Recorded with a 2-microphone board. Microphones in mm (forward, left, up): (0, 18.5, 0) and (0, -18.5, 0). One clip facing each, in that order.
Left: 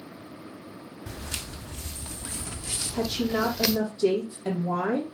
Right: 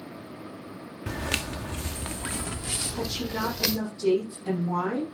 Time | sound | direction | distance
1.1 | footsteps | 75° right (ahead or behind) | 1.0 m
2.9 | a woman speaking | 75° left (ahead or behind) | 5.5 m